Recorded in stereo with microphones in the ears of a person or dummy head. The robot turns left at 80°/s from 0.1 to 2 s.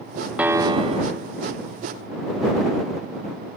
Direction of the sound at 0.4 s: 10° right.